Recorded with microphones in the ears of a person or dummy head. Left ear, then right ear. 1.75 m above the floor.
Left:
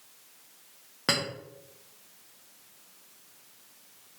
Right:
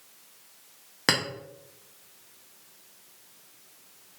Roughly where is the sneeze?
I don't hear a sneeze.